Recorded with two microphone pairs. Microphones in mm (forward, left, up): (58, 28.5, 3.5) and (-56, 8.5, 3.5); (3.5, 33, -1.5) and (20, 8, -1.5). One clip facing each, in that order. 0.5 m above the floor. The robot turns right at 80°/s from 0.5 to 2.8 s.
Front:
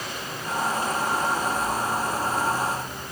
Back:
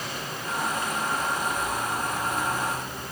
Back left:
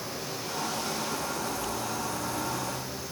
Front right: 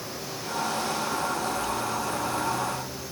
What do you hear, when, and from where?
Only background noise.